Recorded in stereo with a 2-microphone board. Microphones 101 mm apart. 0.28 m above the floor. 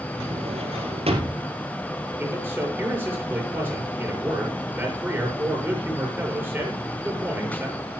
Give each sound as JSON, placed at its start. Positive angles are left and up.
{"t": 0.2, "sound": "a drawer", "side_deg": -80, "distance_m": 2.5}
{"t": 2.2, "sound": "a man speaking", "side_deg": -20, "distance_m": 6.5}